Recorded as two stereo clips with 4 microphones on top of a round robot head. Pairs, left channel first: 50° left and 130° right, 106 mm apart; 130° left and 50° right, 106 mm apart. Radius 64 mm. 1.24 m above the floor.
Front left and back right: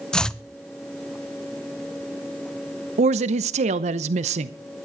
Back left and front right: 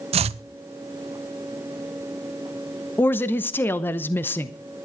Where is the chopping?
35° right, 0.6 m.